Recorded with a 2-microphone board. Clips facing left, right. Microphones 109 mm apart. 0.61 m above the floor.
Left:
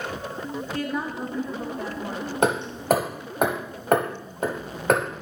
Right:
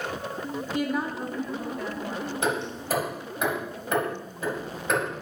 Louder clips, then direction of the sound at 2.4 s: Left 8 dB; 55° left (ahead or behind).